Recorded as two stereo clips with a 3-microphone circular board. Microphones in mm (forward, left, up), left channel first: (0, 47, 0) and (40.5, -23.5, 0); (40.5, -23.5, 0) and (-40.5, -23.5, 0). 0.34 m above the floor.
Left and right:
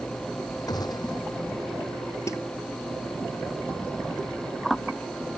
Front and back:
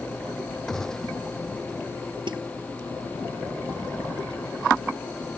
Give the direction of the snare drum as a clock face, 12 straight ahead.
6 o'clock.